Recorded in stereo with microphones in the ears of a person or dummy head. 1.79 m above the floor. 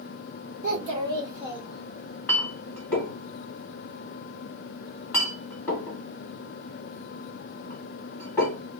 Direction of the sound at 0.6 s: 40° right (ahead or behind).